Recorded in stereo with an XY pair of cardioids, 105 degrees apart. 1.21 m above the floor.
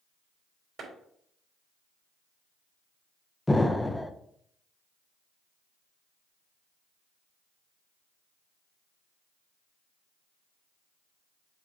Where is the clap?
40° right, 3 m.